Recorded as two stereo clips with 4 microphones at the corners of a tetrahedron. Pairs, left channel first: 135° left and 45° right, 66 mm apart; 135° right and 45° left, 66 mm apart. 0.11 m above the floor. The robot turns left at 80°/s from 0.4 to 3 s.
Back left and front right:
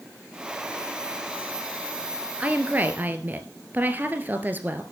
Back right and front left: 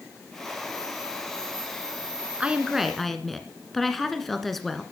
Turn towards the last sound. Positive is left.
turn(degrees=-50)